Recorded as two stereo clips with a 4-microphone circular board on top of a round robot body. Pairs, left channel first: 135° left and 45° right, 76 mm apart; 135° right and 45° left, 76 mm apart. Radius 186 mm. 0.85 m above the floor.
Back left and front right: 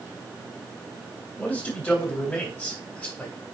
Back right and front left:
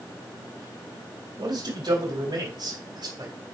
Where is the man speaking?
65° left, 4 m.